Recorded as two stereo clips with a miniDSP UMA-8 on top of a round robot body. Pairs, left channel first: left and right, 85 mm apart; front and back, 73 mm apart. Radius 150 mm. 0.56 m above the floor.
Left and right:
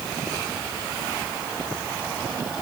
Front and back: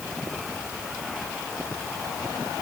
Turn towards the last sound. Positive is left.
No sound to turn to.